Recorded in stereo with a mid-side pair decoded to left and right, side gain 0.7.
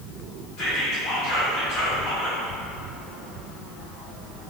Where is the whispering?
70° left, 1.2 m.